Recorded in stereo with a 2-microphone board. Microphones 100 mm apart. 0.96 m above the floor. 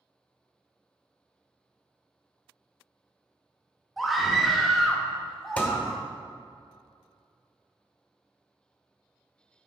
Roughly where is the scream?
Centre.